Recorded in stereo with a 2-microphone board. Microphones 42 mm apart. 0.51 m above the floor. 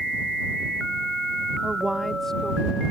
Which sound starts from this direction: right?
A woman speaking, at 1.6 s.